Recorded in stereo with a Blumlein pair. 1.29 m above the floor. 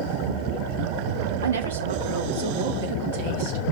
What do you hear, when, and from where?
1.4 s a woman speaking: 70° right, 1.5 m; by 3.6 s 50° right, 2.5 m